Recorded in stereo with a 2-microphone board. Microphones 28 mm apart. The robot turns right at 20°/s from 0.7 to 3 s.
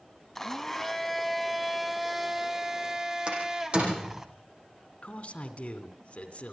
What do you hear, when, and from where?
0.3 s a blender: 160° left, 1.6 m; by 4.3 s 150° right, 1.6 m
3.3 s a door slam: 40° right (ahead or behind), 8.5 m
5.0 s a man speaking: 50° left (ahead or behind), 2.5 m